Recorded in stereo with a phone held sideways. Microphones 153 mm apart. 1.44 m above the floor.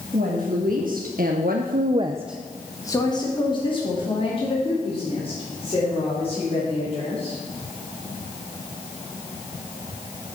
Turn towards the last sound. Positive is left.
turn(degrees=45)  # may be behind; listen again after turning